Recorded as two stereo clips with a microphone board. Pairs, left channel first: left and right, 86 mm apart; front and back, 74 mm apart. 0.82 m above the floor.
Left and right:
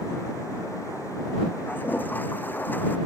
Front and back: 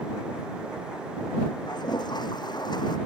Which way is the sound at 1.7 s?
20° left.